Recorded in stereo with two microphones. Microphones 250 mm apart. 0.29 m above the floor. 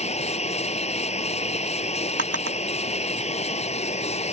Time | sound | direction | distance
0.0 | running water | 25° left (ahead or behind) | ?
2.2 | a drawer | 65° right (ahead or behind) | ?